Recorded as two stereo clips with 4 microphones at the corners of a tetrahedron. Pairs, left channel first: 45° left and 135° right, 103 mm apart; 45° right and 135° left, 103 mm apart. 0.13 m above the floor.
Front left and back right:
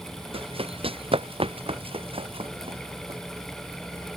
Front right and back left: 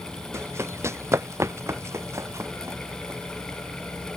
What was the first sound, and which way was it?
Running footsteps, 160° right.